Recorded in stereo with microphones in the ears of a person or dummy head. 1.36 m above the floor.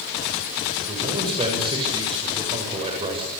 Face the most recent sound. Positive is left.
turn(degrees=-25)  # may be behind; listen again after turning